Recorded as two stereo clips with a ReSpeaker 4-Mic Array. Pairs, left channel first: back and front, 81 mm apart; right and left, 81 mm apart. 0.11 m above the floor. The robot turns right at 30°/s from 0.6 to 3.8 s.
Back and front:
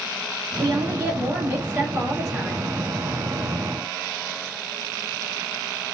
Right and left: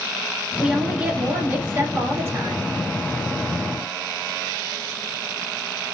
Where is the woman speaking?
20° left, 1.2 m; by 2.7 s 85° left, 1.2 m.